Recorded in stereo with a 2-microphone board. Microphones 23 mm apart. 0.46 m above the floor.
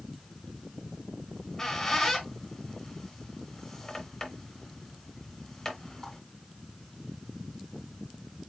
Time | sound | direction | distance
1.3 | a squeak | 15° left (ahead or behind) | 1.5 m